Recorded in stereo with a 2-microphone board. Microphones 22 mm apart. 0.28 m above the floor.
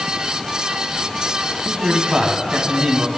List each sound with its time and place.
1.6 s a man speaking: 50° right (ahead or behind), 1.9 m